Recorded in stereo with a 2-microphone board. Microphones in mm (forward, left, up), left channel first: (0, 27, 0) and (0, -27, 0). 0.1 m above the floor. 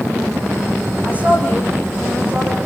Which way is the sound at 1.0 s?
25° right (ahead or behind).